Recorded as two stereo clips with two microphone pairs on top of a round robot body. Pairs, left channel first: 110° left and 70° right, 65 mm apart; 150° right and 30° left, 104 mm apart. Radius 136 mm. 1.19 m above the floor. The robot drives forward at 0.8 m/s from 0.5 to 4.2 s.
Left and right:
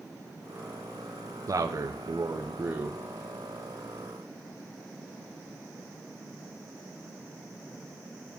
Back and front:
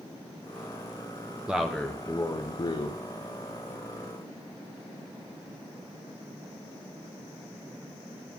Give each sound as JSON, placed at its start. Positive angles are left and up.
{"t": 1.5, "sound": "a man speaking", "azimuth_deg": -55, "distance_m": 1.0}